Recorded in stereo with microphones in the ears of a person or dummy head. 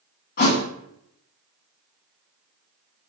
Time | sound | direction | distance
0.4 | a thud | 50° left (ahead or behind) | 1.0 m